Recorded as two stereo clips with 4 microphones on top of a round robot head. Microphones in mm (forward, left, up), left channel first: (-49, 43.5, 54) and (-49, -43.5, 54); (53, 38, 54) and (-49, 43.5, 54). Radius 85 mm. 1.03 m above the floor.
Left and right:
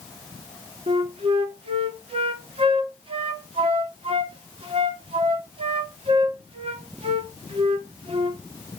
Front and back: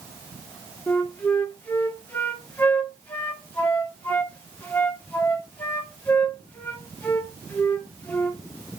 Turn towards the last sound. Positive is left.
turn(degrees=-80)